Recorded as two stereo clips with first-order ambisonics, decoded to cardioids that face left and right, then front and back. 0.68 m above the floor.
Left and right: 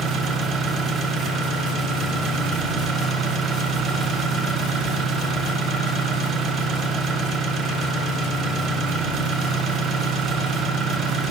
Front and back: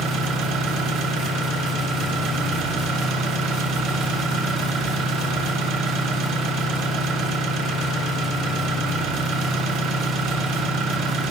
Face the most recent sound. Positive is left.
turn(degrees=-150)